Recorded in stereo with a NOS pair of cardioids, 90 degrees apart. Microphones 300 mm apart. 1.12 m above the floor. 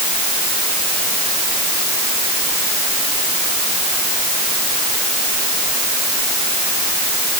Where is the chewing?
I don't hear chewing.